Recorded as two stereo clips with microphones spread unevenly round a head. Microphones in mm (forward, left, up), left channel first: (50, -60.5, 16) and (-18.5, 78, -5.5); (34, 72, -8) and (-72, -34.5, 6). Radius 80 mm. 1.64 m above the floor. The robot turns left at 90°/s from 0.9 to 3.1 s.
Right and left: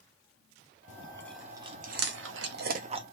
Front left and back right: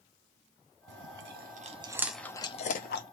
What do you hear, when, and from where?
0.9 s chewing: 115° right, 0.6 m; by 3.0 s 55° left, 0.6 m